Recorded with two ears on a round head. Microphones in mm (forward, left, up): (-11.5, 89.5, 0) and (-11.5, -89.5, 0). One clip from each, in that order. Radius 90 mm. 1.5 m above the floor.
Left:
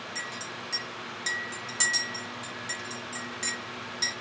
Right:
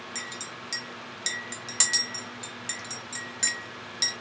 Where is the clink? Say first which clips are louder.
Even; 30° right (ahead or behind), 1.4 m.